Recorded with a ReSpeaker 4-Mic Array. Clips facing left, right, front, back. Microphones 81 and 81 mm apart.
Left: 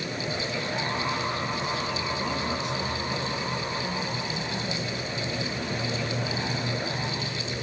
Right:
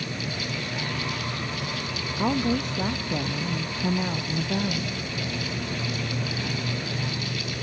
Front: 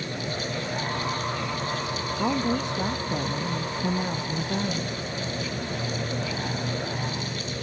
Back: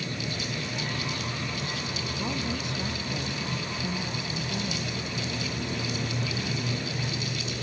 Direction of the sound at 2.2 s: 50° right.